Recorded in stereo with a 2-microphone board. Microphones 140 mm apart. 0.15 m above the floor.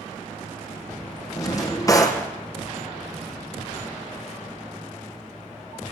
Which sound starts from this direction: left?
A drawer, at 1.4 s.